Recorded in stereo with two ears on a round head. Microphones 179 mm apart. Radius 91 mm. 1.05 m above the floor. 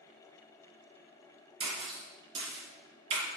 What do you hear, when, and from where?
1.6 s a splash: 30° right (ahead or behind), 3.5 m